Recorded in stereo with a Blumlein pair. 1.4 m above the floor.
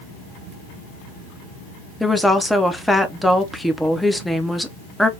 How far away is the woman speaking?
About 0.7 m.